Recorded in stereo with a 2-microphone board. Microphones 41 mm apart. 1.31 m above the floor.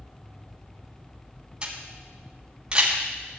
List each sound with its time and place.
1.6 s a camera shutter: 25° right (ahead or behind), 4 m